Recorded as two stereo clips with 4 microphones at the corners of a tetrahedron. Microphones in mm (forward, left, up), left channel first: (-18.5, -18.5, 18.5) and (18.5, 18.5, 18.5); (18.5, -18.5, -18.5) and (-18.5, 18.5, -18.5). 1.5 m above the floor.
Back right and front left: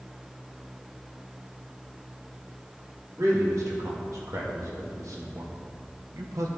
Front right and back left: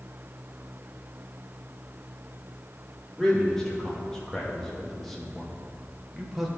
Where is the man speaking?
35° left, 3.5 m; by 6.5 s 55° left, 1.7 m.